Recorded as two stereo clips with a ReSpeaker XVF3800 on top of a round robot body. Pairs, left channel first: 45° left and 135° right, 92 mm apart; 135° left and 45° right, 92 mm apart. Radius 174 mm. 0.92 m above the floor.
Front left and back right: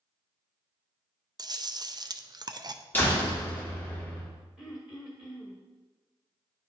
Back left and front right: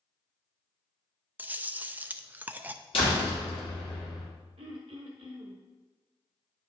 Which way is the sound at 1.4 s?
110° right.